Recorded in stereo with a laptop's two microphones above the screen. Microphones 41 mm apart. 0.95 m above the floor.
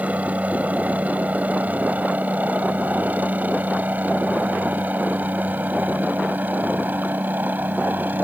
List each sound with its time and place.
0.0 s a helicopter: 40° right (ahead or behind); by 8.2 s 55° right (ahead or behind)